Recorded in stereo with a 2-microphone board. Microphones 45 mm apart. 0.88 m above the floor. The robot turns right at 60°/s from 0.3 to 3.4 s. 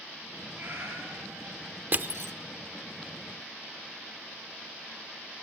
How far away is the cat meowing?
About 6 m.